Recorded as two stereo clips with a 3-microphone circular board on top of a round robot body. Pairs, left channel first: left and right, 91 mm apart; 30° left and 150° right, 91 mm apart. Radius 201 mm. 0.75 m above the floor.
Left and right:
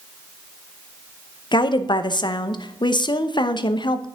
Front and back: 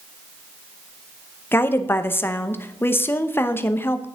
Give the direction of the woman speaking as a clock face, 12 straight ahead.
9 o'clock.